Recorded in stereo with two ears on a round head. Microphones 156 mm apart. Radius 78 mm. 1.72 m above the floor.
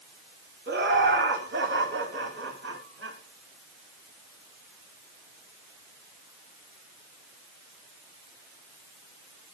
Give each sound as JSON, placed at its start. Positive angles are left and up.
{"t": 0.7, "sound": "laughter", "side_deg": -65, "distance_m": 5.5}